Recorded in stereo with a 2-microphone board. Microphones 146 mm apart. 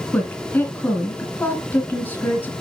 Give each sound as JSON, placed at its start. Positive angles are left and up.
{"t": 0.1, "sound": "a woman speaking", "side_deg": 10, "distance_m": 1.9}